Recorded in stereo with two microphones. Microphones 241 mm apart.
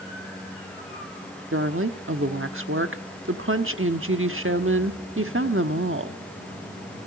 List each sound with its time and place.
1.5 s a woman speaking: 60° right (ahead or behind), 1.2 m